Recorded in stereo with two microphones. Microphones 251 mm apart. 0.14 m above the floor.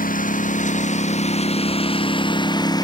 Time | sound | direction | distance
0.0 | a lawn mower | 35° left (ahead or behind) | ?